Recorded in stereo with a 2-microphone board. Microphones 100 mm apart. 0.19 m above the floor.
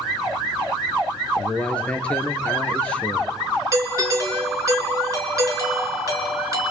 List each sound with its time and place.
1.4 s a man speaking: 10° left (ahead or behind), 3 m
3.7 s a doorbell: 35° right (ahead or behind), 4 m